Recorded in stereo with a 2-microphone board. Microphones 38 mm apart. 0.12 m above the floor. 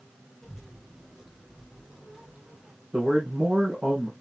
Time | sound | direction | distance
0.4 | a child speaking | 5° right (ahead or behind) | 4.5 m
2.9 | a man speaking | 30° right (ahead or behind) | 3.5 m